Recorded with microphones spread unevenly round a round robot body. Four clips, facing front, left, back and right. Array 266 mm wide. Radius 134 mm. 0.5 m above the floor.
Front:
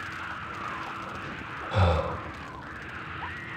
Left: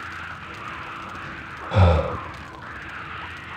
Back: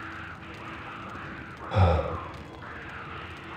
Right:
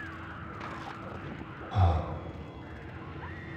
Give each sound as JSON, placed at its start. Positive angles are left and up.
{"t": 1.7, "sound": "breathing", "azimuth_deg": 90, "distance_m": 0.7}